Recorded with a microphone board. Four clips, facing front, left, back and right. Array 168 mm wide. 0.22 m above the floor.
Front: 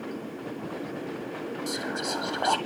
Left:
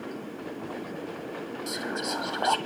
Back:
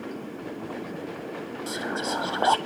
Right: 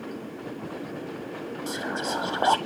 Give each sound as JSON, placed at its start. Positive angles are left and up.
{"t": 1.7, "sound": "whispering", "azimuth_deg": -135, "distance_m": 1.0}